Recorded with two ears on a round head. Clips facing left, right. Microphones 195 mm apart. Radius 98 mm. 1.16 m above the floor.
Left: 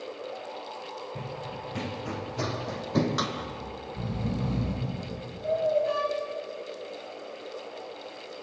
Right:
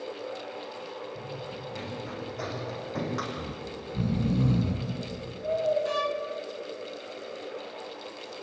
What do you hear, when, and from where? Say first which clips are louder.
1.1 s running footsteps: even; 45° left (ahead or behind), 6 m; by 3.3 s 50° left (ahead or behind), 3 m
3.4 s snoring: right 1 dB; 45° right (ahead or behind), 5 m
5.8 s a violin: left 1 dB; 50° right (ahead or behind), 1.9 m